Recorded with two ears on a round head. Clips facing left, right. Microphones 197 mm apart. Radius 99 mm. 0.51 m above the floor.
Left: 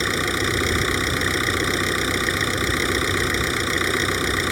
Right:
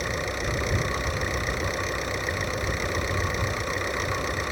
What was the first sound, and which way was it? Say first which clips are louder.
An engine running: left 6 dB; 85° left.